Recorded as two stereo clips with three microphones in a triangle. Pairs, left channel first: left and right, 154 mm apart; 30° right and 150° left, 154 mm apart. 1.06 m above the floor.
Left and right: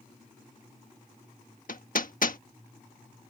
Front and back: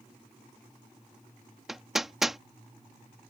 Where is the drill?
I don't hear a drill.